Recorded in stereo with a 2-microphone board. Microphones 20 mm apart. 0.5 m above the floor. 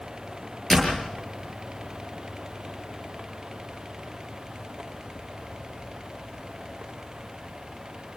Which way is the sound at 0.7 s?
10° left (ahead or behind).